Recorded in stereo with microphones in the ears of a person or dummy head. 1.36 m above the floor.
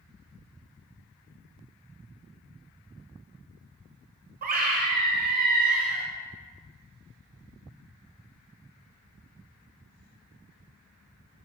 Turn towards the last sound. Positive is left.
turn(degrees=-45)  # may be behind; listen again after turning